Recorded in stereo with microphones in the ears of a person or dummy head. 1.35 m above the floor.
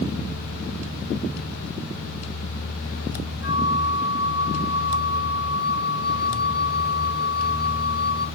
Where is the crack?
No crack in this recording.